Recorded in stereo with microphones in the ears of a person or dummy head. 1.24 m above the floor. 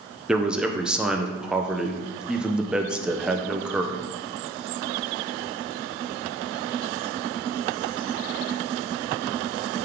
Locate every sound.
0.3 s a man speaking: centre (ahead or behind), 0.6 m